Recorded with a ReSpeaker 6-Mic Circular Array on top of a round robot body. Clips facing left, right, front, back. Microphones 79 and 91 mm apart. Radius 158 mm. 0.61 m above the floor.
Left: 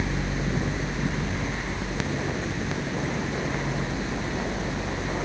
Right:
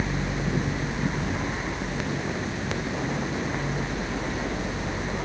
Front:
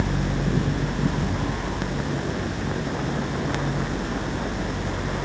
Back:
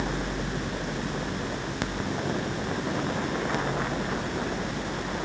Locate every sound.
Only background noise.